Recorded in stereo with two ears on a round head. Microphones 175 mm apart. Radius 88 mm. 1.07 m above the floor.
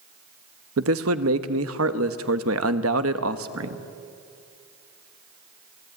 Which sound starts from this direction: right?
A man speaking, at 0.8 s.